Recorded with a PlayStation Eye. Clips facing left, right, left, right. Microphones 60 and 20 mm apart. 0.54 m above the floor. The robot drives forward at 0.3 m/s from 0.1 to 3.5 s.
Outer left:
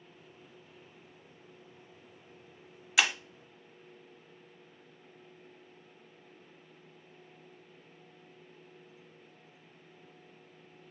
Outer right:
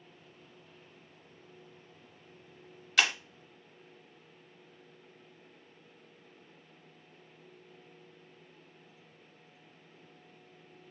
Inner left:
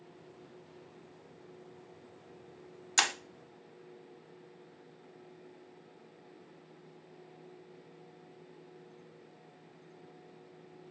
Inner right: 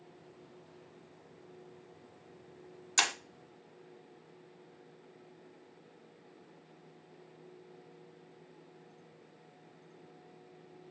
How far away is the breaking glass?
About 0.5 m.